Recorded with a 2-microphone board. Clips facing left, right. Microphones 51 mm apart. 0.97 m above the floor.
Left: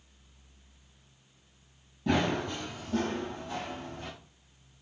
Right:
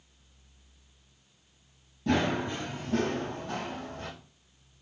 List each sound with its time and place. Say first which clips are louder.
2.1 s running footsteps: right 1 dB; centre (ahead or behind), 1.0 m; by 4.1 s 55° right (ahead or behind), 2.5 m